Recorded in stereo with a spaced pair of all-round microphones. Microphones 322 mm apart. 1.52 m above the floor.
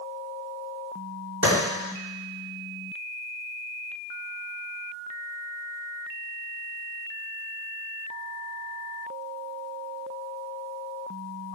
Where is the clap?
55° right (ahead or behind), 3.5 m.